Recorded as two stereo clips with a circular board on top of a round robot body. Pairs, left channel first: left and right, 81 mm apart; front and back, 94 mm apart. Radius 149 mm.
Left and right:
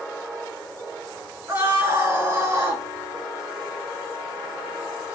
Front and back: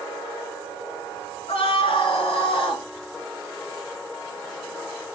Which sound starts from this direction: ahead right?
A scream, at 1.5 s.